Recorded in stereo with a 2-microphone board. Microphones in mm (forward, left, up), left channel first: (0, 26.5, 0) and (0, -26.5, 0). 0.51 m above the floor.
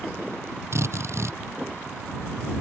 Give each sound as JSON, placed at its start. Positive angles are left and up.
{"t": 0.7, "sound": "a drill", "side_deg": -55}